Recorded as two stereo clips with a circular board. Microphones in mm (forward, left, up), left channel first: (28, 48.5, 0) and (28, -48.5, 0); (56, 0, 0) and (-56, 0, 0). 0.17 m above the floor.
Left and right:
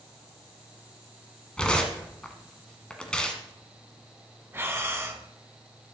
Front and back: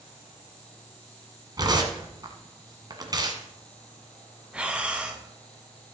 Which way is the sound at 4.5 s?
110° right.